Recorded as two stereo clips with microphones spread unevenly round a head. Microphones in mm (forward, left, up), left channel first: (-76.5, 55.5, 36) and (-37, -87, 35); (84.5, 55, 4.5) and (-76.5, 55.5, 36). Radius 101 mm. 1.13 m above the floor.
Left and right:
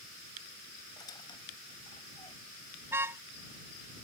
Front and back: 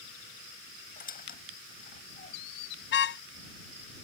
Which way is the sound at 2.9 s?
5° left.